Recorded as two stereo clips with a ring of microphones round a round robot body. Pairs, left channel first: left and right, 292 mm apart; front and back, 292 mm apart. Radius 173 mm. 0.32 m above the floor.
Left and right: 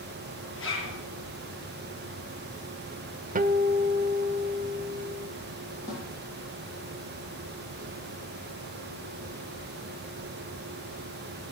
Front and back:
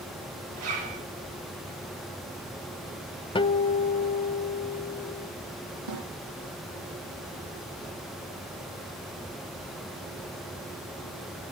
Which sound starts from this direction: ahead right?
A guitar, at 3.4 s.